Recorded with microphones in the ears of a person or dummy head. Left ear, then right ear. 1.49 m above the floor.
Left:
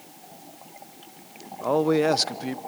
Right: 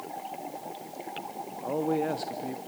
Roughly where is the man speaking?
Left.